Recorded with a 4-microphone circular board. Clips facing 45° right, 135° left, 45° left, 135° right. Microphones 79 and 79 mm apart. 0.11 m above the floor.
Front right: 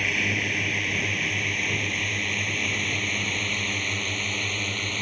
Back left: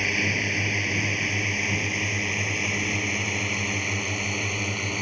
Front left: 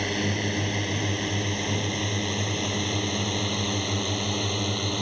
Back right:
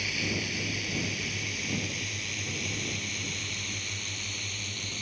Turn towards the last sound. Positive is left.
turn(degrees=55)